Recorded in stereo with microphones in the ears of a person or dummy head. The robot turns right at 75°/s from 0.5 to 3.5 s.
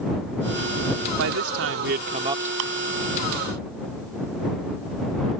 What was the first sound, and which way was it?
A man speaking, 110° right.